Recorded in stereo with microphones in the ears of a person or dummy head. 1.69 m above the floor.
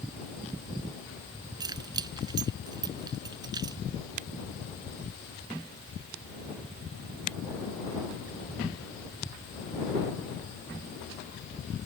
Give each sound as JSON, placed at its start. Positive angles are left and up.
{"t": 1.6, "sound": "keys jangling", "side_deg": -25}